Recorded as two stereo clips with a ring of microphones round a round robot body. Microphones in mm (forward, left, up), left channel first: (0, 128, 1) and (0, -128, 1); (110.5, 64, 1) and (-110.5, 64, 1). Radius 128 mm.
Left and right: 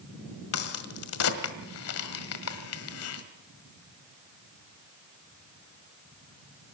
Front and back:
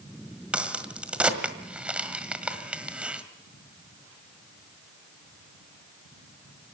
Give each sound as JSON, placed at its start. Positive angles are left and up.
{"t": 0.5, "sound": "a crack", "azimuth_deg": 95, "distance_m": 1.6}